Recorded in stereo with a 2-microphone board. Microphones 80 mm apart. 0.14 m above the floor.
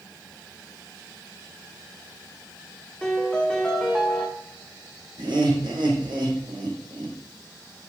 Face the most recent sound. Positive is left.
turn(degrees=-80)